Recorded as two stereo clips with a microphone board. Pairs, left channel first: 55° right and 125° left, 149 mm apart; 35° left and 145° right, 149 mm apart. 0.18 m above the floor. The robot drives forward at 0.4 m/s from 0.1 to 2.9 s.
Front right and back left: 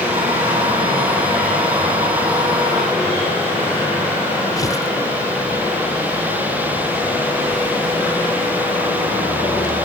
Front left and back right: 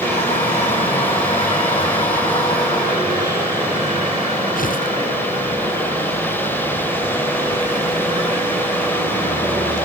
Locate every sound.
4.6 s tearing paper: 10° left